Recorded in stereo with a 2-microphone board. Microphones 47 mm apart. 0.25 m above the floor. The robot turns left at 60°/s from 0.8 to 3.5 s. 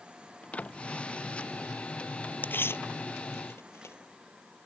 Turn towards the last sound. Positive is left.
turn(degrees=70)  # may be behind; listen again after turning